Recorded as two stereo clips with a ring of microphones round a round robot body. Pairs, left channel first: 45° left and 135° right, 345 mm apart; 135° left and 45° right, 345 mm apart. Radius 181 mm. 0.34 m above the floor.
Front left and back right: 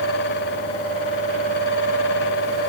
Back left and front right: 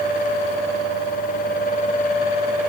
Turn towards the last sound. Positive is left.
No sound to turn to.